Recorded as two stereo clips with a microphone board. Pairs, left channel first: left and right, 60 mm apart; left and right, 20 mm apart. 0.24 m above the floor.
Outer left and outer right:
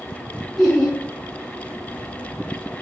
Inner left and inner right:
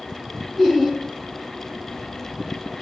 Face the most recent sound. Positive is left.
turn(degrees=0)  # may be behind; listen again after turning